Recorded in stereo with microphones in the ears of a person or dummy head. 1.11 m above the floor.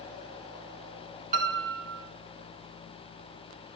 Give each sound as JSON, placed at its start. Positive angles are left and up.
{"t": 1.3, "sound": "a piano", "side_deg": -40, "distance_m": 1.8}